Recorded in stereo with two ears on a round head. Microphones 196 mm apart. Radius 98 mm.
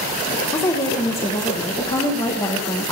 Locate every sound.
0.5 s a woman speaking: 15° left (ahead or behind), 1.1 m